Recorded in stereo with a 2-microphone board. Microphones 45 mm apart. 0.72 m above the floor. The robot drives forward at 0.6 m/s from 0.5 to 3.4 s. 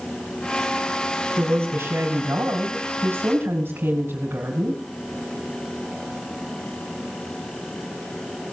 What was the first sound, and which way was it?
A woman speaking, 70° right (ahead or behind).